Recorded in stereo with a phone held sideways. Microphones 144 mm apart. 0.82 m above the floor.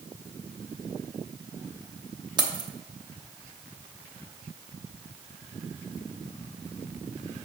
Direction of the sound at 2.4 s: 30° right (ahead or behind).